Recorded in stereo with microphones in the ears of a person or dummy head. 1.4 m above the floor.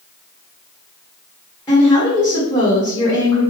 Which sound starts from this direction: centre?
A woman speaking, at 1.7 s.